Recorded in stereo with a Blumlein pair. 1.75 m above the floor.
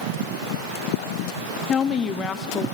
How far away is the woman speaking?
About 0.6 m.